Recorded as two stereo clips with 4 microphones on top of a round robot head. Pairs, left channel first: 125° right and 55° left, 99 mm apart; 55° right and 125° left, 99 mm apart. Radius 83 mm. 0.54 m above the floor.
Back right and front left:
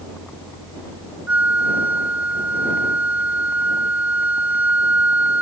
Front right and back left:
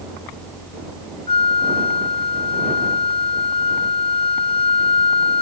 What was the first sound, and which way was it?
A flute, 20° right.